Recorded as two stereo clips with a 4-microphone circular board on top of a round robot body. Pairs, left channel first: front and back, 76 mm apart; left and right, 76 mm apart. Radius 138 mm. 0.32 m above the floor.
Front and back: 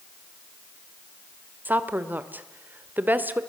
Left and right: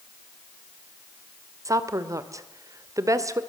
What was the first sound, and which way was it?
A woman speaking, 120° right.